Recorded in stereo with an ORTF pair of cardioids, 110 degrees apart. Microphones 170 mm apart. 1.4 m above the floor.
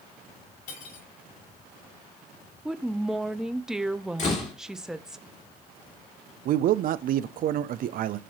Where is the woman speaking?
5° right, 0.6 m.